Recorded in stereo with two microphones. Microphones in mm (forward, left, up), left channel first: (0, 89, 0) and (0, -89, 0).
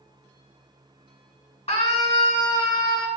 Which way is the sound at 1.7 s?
35° left (ahead or behind).